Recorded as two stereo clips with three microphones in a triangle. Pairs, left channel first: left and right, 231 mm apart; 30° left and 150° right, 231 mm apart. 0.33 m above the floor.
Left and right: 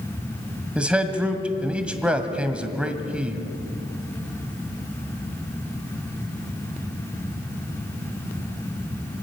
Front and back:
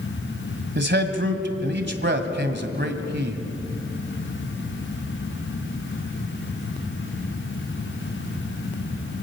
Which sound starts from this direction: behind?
A man speaking, at 0.8 s.